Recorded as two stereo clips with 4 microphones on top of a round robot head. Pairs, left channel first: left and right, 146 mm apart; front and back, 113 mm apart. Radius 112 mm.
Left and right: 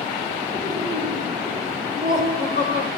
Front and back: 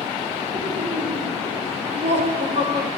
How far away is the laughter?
About 5.5 m.